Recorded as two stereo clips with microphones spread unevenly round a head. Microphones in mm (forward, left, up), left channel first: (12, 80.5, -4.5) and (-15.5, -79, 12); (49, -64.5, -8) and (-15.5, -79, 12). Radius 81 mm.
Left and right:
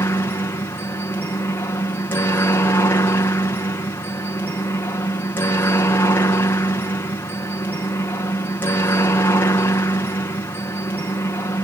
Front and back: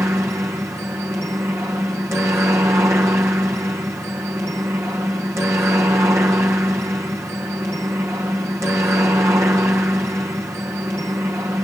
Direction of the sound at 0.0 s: 140° left.